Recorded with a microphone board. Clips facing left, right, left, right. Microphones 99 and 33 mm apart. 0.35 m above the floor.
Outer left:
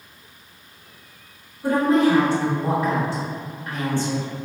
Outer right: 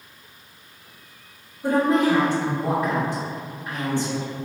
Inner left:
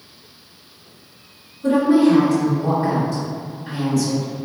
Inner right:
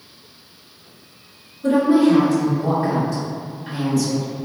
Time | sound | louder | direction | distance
1.6 | a woman speaking | outer left 1 dB, even | 15° right (ahead or behind) | 1.9 m